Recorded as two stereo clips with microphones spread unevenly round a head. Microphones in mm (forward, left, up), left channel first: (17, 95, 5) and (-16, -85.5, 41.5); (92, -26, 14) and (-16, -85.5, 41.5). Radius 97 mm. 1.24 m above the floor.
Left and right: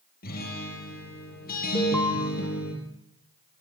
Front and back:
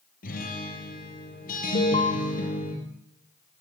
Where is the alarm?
5° right, 3 m.